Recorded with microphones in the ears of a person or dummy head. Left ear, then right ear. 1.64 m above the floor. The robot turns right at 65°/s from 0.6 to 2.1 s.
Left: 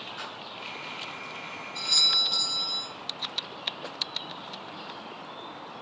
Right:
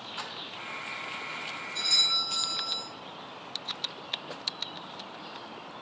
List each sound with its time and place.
0.2 s a splash: 25° right (ahead or behind), 1.0 m
1.8 s a doorbell: 25° right (ahead or behind), 1.8 m; by 2.9 s 45° right (ahead or behind), 1.8 m